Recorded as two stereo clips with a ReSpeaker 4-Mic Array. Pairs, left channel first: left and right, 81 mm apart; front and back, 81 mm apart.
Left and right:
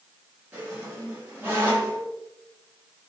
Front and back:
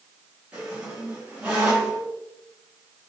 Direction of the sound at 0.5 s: 130° right.